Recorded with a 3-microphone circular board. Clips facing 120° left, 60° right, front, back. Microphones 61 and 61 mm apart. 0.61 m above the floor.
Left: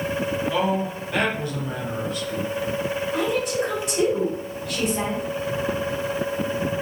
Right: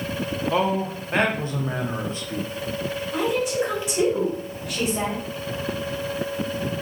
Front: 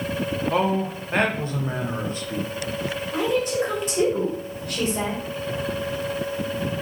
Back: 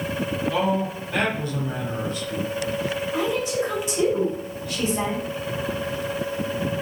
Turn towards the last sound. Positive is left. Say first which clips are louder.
# right 2 dB, front 3 dB
turn(degrees=15)